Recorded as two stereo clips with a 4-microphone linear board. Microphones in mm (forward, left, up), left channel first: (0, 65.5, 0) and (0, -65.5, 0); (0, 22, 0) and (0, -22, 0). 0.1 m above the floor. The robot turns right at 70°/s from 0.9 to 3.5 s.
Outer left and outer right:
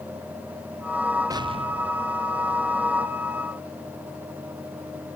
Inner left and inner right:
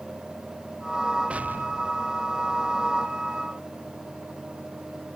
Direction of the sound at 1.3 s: 150° right.